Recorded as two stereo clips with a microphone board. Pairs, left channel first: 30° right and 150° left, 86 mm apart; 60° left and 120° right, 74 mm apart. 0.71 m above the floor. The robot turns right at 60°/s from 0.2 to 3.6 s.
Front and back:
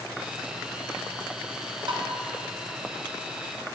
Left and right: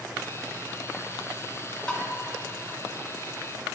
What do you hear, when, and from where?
1.9 s tapping: 135° left, 1.3 m; by 2.1 s 145° left, 1.3 m